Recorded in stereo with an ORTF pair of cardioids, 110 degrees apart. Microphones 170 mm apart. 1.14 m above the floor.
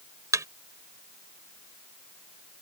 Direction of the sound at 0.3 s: 20° right.